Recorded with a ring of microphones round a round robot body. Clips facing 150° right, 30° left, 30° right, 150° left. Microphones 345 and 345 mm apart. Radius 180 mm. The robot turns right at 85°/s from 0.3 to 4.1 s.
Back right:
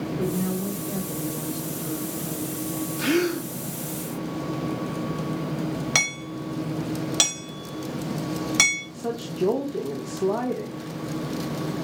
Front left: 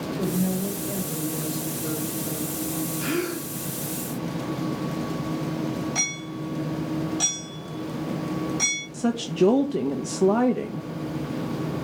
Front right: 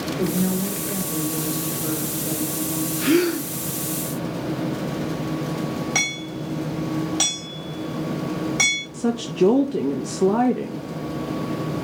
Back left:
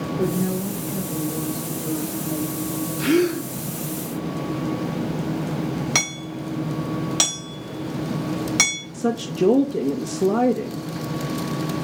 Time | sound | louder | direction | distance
0.2 | a woman speaking | front left 2 dB, even | 100° right | 3 m
3.0 | a gasp | back right 7 dB, even | 125° right | 1.6 m
6.0 | hammering | even, even | 150° right | 4 m
8.9 | a woman speaking | front left 5 dB, front right 1 dB | 45° left | 0.8 m